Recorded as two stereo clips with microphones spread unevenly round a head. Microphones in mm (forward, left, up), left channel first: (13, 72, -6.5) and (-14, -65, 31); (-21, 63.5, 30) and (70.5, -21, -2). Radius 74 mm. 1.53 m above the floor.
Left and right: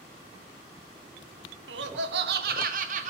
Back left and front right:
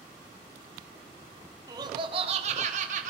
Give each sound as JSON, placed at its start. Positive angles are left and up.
{"t": 1.7, "sound": "laughter", "azimuth_deg": -105, "distance_m": 1.3}